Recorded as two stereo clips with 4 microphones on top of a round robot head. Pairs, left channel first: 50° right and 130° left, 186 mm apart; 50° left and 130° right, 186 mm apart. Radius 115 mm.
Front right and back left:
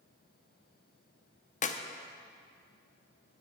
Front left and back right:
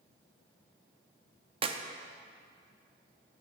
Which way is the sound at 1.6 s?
80° right.